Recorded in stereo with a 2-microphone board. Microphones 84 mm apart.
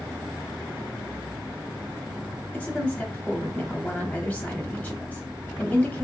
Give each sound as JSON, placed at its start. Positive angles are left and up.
{"t": 2.5, "sound": "a woman speaking", "side_deg": 20, "distance_m": 1.1}